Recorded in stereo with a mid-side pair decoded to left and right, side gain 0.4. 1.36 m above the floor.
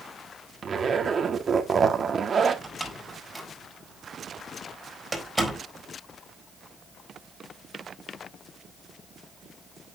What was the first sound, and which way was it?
A zipper, 45° right.